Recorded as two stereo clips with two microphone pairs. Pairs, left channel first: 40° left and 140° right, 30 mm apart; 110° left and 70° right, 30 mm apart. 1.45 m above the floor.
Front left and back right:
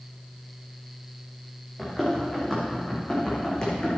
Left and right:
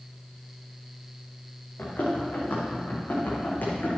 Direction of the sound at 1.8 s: 120° left.